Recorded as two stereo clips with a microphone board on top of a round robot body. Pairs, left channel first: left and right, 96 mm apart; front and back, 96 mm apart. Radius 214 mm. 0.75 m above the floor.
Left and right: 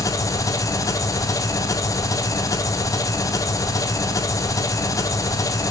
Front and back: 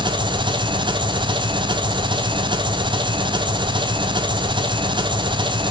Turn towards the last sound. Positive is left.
turn(degrees=145)